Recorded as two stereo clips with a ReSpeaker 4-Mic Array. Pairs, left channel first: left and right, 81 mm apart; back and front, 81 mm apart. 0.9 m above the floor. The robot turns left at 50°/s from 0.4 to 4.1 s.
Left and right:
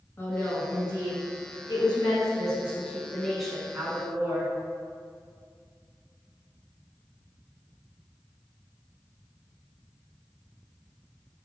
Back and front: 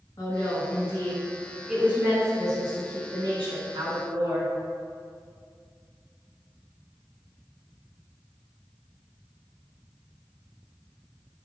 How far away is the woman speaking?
About 1.5 m.